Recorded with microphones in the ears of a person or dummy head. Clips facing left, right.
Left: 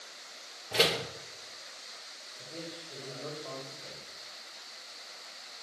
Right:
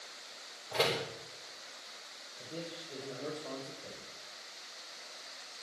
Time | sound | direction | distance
0.7 | a door slam | 40° left (ahead or behind) | 3.5 m
2.4 | a man speaking | 20° right (ahead or behind) | 5.5 m